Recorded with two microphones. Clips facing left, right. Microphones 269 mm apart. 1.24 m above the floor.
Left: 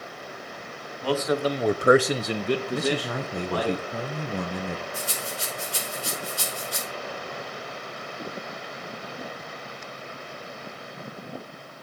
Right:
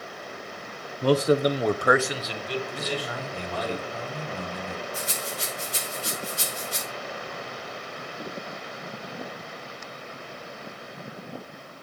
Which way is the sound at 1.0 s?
50° right (ahead or behind).